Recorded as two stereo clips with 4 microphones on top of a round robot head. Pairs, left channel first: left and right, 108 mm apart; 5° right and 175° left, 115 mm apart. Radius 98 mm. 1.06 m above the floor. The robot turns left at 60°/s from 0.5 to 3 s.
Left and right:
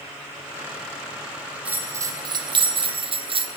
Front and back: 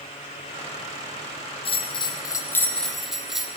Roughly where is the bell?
Ahead.